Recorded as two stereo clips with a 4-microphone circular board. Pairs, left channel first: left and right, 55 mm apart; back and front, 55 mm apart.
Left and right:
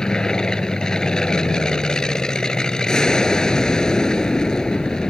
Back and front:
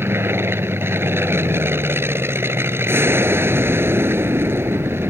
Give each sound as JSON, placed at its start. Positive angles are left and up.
{"t": 0.0, "sound": "an aircraft", "azimuth_deg": 15}